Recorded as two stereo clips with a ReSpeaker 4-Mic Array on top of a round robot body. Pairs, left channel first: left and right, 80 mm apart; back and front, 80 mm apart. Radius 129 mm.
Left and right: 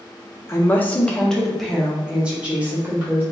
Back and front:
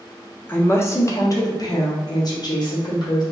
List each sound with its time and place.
0.5 s a woman speaking: 130° left, 0.9 m; by 3.2 s 155° right, 1.6 m